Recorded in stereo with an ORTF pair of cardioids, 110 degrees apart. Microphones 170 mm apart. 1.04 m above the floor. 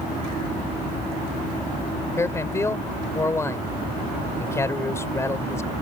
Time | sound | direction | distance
2.2 | a man speaking | 15° left | ?